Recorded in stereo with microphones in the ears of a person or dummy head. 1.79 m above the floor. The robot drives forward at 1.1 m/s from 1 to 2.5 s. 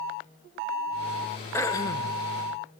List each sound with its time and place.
1.5 s throat clearing: 15° left (ahead or behind), 0.8 m; by 2.2 s 25° left (ahead or behind), 0.5 m